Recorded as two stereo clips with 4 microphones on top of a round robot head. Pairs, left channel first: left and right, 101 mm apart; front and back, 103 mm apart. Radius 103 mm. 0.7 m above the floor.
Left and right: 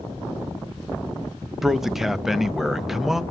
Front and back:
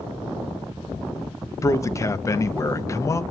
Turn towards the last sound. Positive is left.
turn(degrees=-5)